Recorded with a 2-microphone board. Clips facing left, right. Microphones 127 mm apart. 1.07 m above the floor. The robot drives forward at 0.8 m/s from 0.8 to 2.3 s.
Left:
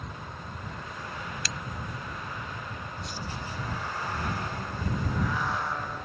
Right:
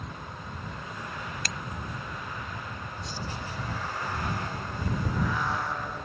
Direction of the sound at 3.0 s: 30° right (ahead or behind).